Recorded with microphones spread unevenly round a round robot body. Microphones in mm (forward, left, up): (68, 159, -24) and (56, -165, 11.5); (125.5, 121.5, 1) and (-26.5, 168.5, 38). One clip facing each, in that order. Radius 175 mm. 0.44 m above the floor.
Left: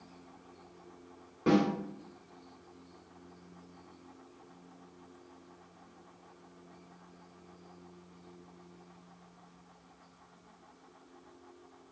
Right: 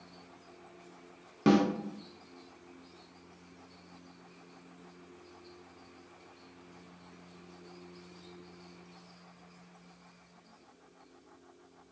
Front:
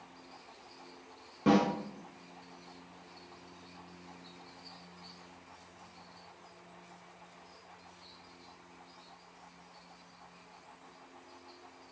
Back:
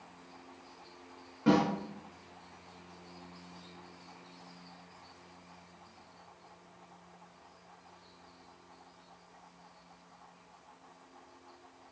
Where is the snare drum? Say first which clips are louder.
Right 2 dB, even; 65° right, 0.6 m.